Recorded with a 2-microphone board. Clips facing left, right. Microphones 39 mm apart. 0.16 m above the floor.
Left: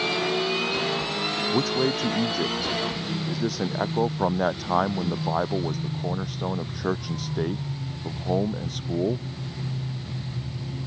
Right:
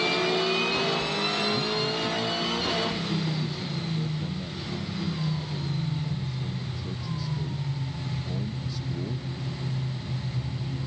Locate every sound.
1.5 s a man speaking: 80° left; by 9.3 s 55° left (ahead or behind)